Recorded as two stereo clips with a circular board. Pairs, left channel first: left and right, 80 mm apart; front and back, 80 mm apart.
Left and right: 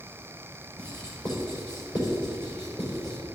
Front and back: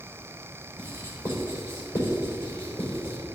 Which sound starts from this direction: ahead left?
Writing, at 0.8 s.